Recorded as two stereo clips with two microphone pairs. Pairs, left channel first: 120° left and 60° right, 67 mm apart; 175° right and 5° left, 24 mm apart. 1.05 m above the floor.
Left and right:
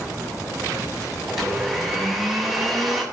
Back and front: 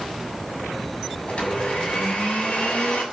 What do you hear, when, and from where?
1.3 s a blender: 145° right, 7.5 m